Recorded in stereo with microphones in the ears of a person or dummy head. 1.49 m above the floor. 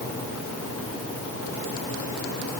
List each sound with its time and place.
Only background noise.